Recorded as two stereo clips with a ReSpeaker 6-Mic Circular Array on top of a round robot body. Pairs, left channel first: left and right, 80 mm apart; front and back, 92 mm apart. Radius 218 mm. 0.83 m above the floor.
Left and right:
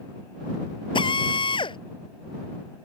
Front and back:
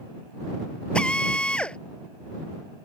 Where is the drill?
80° left.